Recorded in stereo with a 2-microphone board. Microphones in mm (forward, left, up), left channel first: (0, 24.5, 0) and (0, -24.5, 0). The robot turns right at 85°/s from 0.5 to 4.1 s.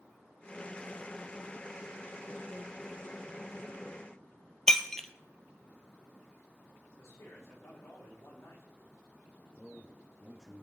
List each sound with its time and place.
4.7 s breaking glass: 10° left (ahead or behind), 1.1 m
7.0 s a man speaking: 65° left (ahead or behind), 7 m
9.6 s a man speaking: 5° right (ahead or behind), 1.4 m